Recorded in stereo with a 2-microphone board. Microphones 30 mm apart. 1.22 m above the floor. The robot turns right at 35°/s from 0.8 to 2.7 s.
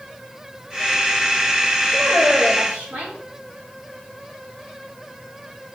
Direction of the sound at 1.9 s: 90° right.